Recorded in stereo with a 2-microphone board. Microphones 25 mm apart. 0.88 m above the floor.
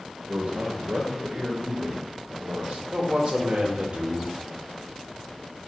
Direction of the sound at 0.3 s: 70° right (ahead or behind).